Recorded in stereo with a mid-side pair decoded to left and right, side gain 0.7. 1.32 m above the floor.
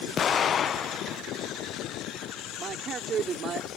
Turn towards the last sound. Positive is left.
turn(degrees=-35)